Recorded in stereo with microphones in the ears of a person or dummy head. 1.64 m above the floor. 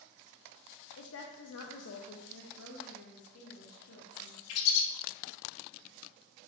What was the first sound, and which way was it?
A woman speaking, 70° left (ahead or behind).